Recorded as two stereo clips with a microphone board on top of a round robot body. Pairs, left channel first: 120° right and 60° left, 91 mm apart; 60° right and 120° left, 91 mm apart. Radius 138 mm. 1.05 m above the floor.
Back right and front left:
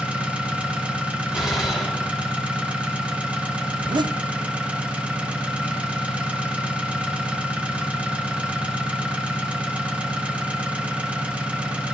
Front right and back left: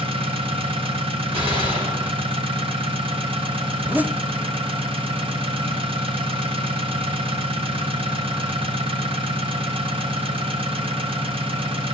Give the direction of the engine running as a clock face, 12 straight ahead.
7 o'clock.